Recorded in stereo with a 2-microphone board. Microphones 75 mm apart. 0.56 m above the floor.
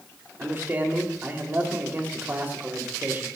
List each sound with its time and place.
0.4 s a man speaking: 30° right (ahead or behind), 2.5 m